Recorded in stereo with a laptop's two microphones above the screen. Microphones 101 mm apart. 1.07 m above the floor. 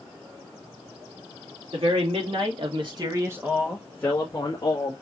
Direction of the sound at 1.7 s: 75° right (ahead or behind).